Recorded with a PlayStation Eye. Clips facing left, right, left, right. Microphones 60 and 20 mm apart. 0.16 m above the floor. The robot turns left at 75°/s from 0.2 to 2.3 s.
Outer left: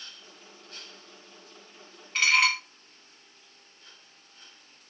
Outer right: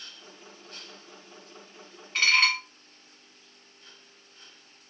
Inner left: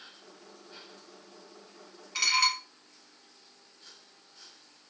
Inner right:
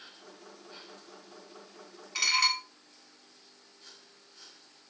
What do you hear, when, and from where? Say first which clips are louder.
2.1 s dishes clattering: even, inner left 1 dB; centre (ahead or behind), 0.9 m; by 2.6 s 5° left (ahead or behind), 0.9 m